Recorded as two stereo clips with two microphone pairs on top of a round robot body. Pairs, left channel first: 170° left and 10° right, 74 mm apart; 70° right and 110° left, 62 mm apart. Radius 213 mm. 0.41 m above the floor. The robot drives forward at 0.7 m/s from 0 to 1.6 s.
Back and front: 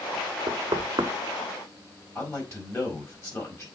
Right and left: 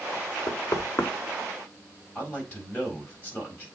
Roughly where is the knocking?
Ahead right.